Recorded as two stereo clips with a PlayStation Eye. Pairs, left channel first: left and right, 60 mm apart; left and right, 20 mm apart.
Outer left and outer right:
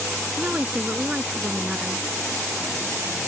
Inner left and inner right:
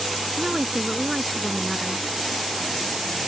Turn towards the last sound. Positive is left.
turn(degrees=-20)  # may be behind; listen again after turning